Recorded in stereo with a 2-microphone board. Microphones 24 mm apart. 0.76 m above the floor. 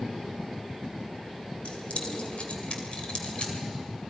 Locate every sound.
1.6 s keys jangling: 75° left (ahead or behind), 2.5 m; by 3.5 s 55° left (ahead or behind), 3 m